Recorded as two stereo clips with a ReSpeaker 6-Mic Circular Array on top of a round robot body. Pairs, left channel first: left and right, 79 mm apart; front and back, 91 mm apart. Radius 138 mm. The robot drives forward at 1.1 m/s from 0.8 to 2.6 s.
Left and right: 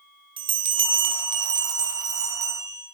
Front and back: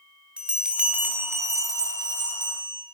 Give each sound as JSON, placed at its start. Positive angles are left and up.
{"t": 0.4, "sound": "a bell", "azimuth_deg": -100, "distance_m": 1.7}